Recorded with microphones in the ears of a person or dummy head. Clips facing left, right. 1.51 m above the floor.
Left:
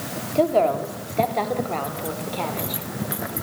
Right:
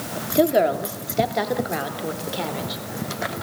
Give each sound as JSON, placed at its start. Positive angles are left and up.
{"t": 0.3, "sound": "a woman speaking", "side_deg": -15, "distance_m": 2.5}